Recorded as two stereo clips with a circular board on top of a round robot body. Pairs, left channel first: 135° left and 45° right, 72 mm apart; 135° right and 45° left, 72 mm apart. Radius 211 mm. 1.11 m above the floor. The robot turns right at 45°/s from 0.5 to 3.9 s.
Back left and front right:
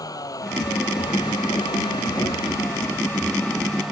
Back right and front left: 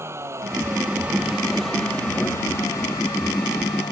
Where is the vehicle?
100° left; by 3.9 s 135° right.